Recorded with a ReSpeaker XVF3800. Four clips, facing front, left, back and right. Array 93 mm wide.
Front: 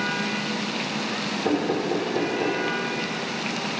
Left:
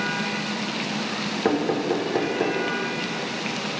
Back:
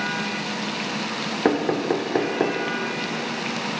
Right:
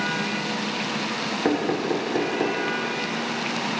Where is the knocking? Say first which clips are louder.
Left 1 dB, back 3 dB; 175° left, 0.7 m.